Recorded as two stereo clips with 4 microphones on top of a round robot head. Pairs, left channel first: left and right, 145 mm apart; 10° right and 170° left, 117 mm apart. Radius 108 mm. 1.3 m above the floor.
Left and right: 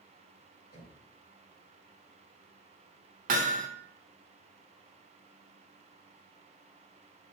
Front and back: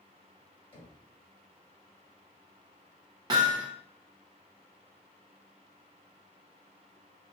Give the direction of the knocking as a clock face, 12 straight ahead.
11 o'clock.